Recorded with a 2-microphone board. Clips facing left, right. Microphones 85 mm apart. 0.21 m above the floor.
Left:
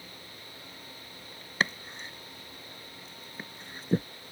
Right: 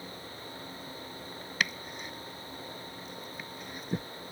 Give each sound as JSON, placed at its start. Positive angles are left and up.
{"t": 1.6, "sound": "chopping", "side_deg": 30}